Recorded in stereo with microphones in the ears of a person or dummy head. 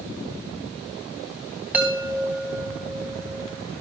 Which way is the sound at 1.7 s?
5° right (ahead or behind).